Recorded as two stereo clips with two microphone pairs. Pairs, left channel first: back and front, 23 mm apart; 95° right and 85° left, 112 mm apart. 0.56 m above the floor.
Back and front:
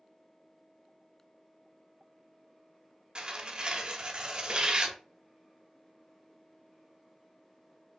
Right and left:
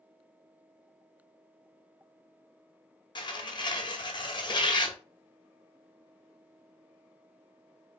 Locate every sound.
3.1 s tearing paper: 50° right, 0.7 m